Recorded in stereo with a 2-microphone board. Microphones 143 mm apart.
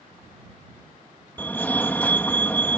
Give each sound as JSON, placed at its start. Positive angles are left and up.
{"t": 1.4, "sound": "a fire alarm", "side_deg": 10}